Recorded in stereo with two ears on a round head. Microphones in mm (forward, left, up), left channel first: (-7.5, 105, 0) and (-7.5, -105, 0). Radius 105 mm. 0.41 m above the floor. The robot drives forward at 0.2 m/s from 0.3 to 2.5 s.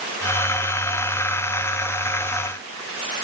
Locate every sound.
Only background noise.